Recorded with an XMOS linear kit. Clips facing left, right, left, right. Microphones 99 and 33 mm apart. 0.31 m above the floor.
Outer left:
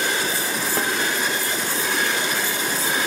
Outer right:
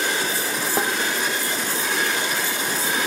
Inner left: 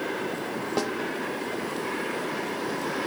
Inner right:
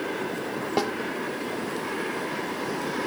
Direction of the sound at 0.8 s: 15° right (ahead or behind).